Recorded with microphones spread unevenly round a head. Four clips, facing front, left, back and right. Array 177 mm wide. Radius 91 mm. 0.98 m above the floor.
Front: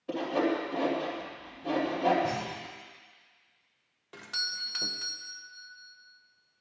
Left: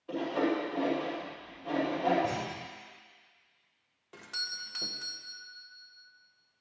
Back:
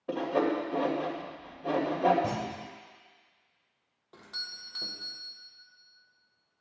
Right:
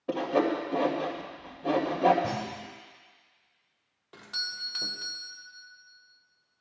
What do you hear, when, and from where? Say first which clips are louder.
0.1 s sawing: right 4 dB, back 1 dB; 105° right, 2.5 m
2.2 s a clunk: right 1 dB, even; 150° right, 1.5 m
4.1 s a doorbell: right 2 dB, front 7 dB; 15° left, 1.0 m